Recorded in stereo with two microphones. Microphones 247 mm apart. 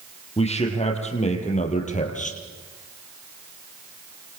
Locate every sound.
0.4 s a man speaking: 25° left (ahead or behind), 7 m; by 2.4 s 30° left (ahead or behind), 5.5 m